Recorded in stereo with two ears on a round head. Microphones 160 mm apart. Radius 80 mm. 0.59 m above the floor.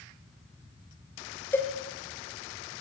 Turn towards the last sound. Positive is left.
turn(degrees=10)  # may be behind; listen again after turning